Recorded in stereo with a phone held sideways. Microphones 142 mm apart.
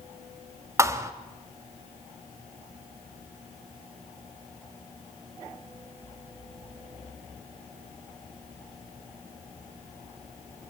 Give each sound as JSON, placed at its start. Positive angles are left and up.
{"t": 0.8, "sound": "a thud", "side_deg": -20, "distance_m": 1.5}